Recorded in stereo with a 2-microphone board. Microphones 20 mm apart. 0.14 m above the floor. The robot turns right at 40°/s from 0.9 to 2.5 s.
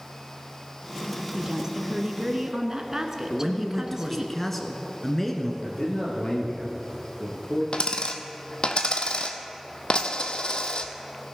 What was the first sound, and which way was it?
A woman speaking, 100° right.